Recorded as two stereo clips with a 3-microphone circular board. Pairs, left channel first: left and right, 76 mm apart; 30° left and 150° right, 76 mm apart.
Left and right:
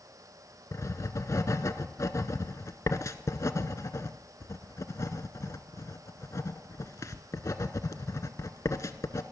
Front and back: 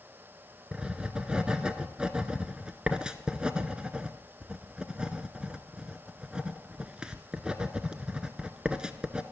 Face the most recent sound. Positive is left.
turn(degrees=135)